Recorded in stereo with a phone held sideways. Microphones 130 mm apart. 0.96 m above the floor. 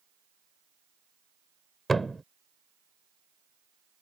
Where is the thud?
Centre (ahead or behind).